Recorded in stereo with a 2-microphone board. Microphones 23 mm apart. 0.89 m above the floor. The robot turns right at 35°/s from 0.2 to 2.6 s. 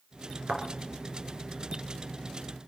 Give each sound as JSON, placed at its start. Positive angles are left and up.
{"t": 0.5, "sound": "a thud", "side_deg": -75, "distance_m": 3.5}